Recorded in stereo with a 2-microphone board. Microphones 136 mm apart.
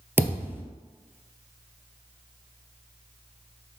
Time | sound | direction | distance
0.2 | a thud | 15° right (ahead or behind) | 0.8 m